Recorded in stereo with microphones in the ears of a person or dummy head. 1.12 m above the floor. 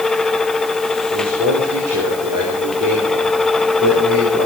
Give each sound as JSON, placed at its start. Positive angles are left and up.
{"t": 1.1, "sound": "a man speaking", "side_deg": -80, "distance_m": 4.5}